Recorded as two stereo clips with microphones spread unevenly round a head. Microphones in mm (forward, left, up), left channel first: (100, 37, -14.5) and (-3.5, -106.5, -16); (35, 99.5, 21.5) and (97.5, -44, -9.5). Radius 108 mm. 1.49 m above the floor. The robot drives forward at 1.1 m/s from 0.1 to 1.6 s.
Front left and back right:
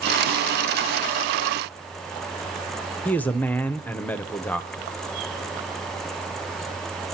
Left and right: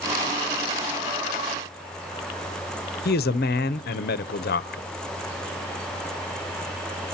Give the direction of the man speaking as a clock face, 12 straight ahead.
7 o'clock.